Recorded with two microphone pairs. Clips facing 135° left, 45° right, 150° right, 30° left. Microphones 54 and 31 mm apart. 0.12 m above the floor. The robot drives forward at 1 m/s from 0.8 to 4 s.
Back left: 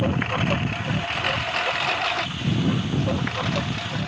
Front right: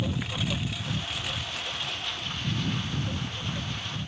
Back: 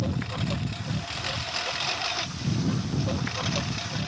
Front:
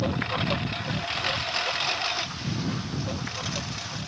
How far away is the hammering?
No hammering in this recording.